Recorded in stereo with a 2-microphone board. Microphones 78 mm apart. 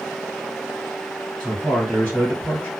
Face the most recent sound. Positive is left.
turn(degrees=20)  # may be behind; listen again after turning